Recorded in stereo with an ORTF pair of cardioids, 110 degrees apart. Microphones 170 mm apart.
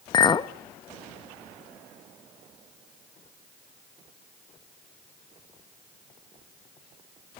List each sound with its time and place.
0.1 s a clink: 25° left, 0.7 m